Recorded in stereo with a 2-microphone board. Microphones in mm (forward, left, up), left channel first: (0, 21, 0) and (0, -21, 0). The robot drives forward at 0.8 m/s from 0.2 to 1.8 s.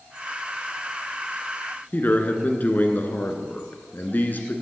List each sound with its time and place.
1.9 s a man speaking: 45° left (ahead or behind), 1.7 m